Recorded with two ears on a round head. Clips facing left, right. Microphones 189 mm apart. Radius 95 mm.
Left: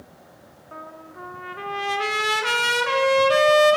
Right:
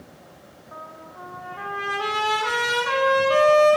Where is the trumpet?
30° left (ahead or behind), 0.5 m.